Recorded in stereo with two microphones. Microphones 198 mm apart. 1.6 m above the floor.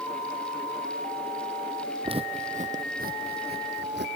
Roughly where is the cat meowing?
No cat meowing in this recording.